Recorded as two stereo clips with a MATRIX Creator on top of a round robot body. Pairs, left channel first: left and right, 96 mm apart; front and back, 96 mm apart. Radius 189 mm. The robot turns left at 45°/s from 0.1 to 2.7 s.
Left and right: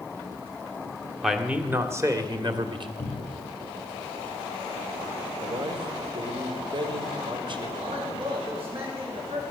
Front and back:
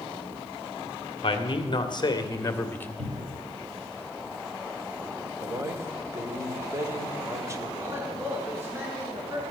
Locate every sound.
1.2 s a man speaking: straight ahead, 2 m; by 2.9 s 65° right, 2 m
3.0 s a cupboard door: 160° left, 2 m
5.4 s a man speaking: 120° right, 2 m
7.8 s a man speaking: 115° right, 7 m